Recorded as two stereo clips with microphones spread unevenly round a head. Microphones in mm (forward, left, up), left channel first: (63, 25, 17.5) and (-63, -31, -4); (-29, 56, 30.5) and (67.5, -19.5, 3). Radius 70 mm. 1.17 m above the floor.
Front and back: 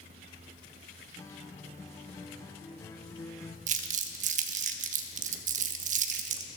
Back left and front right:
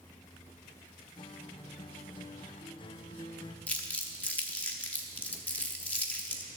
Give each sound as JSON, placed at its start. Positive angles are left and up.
{"t": 1.2, "sound": "a guitar", "azimuth_deg": 95, "distance_m": 0.6}
{"t": 3.7, "sound": "crumpling", "azimuth_deg": -160, "distance_m": 0.8}